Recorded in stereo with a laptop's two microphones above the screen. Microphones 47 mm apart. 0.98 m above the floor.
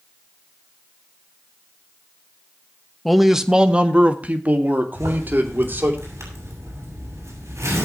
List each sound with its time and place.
3.0 s a man speaking: 5° left (ahead or behind), 1.0 m; by 6.0 s 45° right (ahead or behind), 3 m
5.0 s a zipper: 85° right, 6.5 m